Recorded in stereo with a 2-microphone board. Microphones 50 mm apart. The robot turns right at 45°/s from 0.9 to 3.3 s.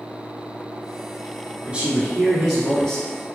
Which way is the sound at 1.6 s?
35° right.